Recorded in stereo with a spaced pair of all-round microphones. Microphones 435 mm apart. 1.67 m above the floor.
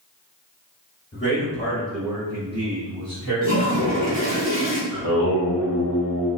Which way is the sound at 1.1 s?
25° left (ahead or behind).